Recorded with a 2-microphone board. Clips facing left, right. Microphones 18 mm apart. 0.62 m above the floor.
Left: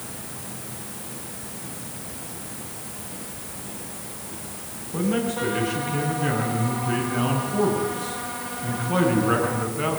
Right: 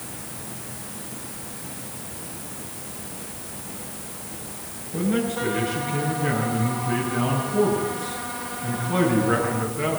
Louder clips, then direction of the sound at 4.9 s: Even; 40° left (ahead or behind).